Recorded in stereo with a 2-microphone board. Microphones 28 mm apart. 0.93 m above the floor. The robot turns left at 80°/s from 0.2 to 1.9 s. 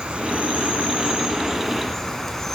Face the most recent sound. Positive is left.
turn(degrees=170)